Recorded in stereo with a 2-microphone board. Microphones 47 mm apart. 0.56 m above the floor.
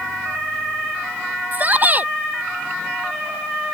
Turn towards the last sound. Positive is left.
turn(degrees=-40)  # may be behind; listen again after turning